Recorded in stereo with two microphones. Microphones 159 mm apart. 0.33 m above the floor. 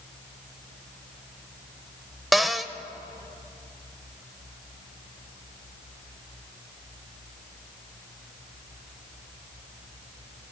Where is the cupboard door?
Centre (ahead or behind), 0.5 m.